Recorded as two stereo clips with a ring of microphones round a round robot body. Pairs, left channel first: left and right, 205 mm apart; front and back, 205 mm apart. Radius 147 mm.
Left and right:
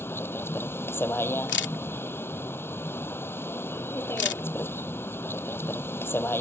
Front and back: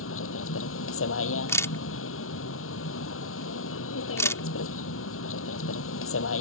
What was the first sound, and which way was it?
A vehicle, 10° left.